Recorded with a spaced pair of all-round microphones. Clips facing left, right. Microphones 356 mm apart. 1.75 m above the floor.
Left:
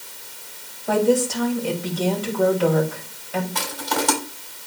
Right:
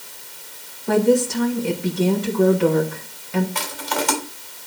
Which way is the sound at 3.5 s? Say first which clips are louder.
Left 1 dB; 50° left (ahead or behind).